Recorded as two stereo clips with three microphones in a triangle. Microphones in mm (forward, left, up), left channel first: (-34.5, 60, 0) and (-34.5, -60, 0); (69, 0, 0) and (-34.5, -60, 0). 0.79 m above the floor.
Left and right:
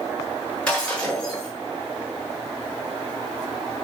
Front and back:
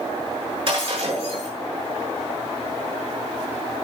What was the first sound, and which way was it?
Breaking glass, 170° left.